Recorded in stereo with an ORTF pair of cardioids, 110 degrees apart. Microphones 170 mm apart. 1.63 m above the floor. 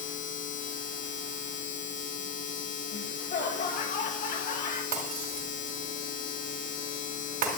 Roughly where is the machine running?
Ahead left.